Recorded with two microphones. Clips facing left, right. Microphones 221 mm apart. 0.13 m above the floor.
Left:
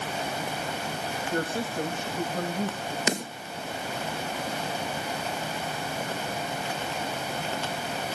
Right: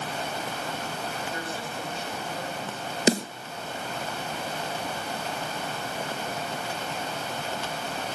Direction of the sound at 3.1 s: 35° right (ahead or behind).